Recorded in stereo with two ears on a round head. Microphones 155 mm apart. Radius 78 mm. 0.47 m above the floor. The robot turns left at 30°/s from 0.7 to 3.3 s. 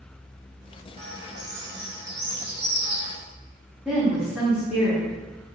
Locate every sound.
1.0 s a bird: 70° right, 1.1 m; by 3.2 s 135° right, 1.1 m
3.9 s a woman speaking: 5° right (ahead or behind), 1.1 m